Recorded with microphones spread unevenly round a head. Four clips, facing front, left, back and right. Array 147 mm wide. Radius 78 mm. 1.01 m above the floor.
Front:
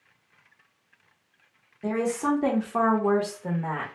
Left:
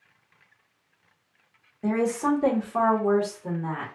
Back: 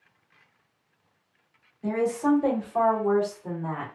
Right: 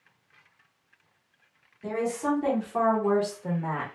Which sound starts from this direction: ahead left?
A woman speaking, at 1.8 s.